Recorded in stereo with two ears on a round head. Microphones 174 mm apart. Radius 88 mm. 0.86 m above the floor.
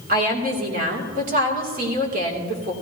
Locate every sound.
0.1 s a woman speaking: 50° right (ahead or behind), 3 m